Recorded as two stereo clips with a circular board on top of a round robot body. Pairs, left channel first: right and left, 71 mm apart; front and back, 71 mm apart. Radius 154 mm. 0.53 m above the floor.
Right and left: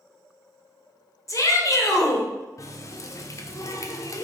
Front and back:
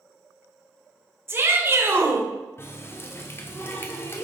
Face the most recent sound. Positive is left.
turn(degrees=-55)